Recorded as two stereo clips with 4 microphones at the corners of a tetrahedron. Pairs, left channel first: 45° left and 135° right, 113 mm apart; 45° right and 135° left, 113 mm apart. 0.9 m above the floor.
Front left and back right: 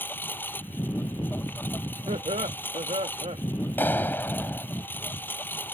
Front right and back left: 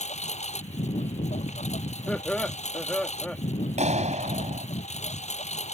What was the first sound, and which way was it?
A lawn mower, 30° right.